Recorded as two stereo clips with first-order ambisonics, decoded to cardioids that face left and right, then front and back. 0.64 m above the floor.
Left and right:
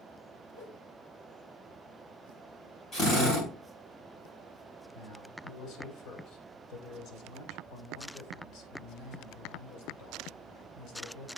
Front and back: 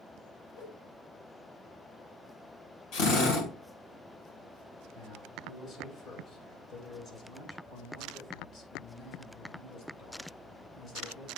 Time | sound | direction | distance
0.5 | a whoosh | 50° left | 5 m
2.9 | a drill | 25° left | 3.5 m
4.9 | a man speaking | 50° left | 2.5 m